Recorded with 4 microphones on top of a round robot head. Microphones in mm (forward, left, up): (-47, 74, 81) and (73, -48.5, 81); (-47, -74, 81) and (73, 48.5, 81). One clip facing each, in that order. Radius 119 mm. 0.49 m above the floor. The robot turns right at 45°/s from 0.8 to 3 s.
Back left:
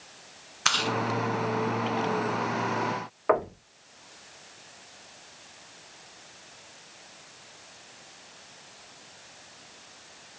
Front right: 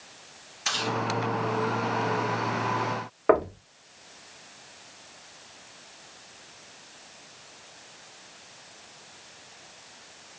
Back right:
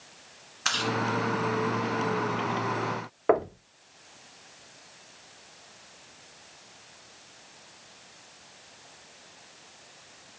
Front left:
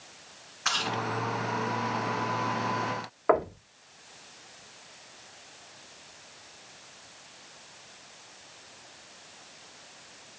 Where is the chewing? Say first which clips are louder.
Back left 1 dB, back right 3 dB; 165° left, 1.2 m; by 1.0 s 170° left, 1.2 m.